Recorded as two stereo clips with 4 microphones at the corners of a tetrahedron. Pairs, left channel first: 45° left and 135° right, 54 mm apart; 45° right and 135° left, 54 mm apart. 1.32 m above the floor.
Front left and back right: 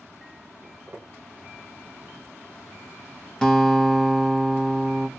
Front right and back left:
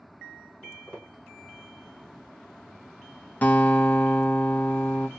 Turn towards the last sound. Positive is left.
turn(degrees=-30)